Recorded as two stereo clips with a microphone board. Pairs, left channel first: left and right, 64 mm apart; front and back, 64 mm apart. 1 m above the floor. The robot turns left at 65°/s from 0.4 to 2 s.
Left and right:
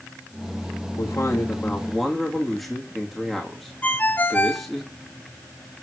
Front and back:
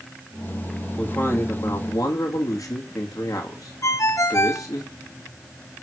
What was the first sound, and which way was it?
A man speaking, 70° left.